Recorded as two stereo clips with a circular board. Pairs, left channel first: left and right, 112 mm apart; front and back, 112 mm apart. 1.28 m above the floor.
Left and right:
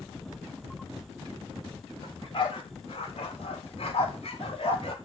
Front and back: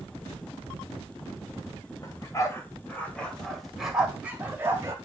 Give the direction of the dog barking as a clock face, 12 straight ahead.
10 o'clock.